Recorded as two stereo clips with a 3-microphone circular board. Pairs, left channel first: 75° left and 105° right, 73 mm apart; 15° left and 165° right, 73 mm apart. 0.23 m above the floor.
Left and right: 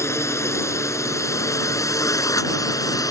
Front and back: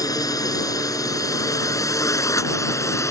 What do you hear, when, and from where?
0.0 s a drone: 30° left; by 3.1 s 50° left